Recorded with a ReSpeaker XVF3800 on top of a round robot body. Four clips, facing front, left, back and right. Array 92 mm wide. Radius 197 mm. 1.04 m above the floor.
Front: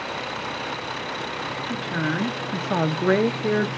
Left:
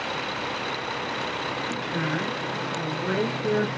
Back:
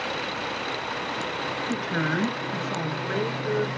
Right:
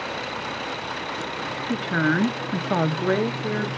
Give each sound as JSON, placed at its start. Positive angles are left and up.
{"t": 1.7, "sound": "a woman speaking", "azimuth_deg": -110, "distance_m": 1.3}